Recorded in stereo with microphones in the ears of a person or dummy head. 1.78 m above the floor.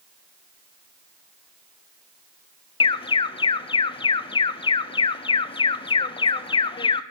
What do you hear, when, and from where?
2.8 s an alarm: 25° left (ahead or behind), 0.6 m